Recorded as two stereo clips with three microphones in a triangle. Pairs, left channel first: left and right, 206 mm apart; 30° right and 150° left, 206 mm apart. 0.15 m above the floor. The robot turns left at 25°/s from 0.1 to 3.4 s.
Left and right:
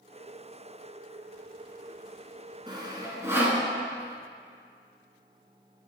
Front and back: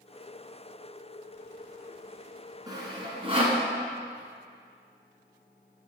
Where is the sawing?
145° right, 1.4 m; by 3.6 s 165° right, 1.4 m.